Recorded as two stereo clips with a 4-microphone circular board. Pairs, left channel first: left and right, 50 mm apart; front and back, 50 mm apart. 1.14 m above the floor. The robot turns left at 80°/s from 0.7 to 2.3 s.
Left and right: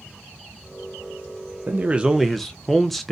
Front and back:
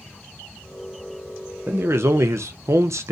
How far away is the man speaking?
About 0.5 m.